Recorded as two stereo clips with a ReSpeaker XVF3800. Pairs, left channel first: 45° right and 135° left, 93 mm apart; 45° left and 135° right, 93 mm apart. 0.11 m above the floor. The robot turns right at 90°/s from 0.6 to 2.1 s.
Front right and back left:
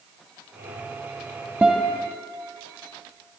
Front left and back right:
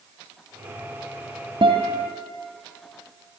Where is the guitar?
150° right, 3 m; by 2.1 s 105° right, 3 m.